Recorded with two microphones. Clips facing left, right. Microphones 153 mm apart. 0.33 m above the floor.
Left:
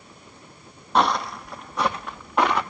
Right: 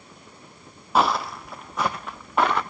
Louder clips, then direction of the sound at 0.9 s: Even; 5° right (ahead or behind).